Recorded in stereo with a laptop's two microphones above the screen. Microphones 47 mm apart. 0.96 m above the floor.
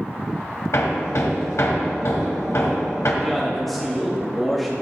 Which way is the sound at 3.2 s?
Centre (ahead or behind).